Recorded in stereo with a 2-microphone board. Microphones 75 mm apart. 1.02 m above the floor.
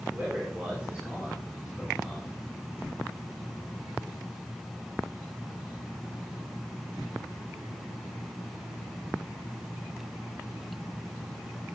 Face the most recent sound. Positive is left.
turn(degrees=-5)  # may be behind; listen again after turning